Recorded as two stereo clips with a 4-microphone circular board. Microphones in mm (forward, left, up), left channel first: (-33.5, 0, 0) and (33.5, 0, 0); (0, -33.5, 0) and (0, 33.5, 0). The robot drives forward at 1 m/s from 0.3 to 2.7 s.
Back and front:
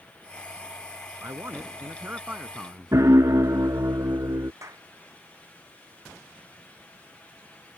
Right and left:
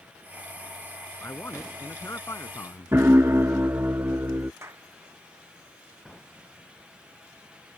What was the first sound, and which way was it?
A man speaking, 40° right.